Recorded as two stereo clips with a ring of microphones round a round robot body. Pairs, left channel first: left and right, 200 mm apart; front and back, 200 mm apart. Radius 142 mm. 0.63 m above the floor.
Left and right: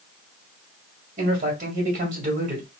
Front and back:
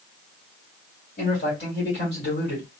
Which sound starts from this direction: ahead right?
A man speaking, at 1.2 s.